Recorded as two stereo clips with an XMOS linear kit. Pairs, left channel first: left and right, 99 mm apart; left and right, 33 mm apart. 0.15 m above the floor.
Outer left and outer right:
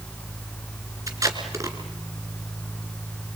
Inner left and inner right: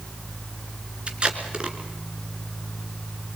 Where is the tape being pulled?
35° right (ahead or behind), 2.5 m.